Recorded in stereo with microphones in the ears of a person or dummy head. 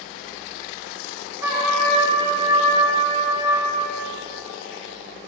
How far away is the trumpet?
About 2 m.